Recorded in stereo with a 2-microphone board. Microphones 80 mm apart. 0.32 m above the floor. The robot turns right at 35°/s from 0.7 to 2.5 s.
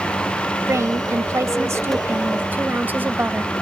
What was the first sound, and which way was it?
A woman speaking, 105° right.